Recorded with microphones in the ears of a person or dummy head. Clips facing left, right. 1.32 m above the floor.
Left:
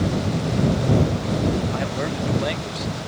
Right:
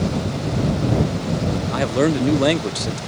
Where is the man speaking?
60° right (ahead or behind).